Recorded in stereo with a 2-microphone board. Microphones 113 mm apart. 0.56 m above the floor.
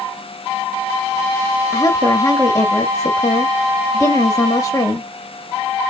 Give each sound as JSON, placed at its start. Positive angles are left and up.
{"t": 1.7, "sound": "a woman speaking", "side_deg": 30, "distance_m": 0.9}